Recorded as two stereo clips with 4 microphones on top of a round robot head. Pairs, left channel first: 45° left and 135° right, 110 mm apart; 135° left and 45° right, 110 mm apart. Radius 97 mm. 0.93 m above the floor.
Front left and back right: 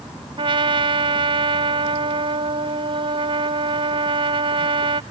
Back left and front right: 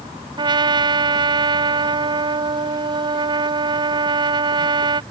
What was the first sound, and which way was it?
A trumpet, 95° right.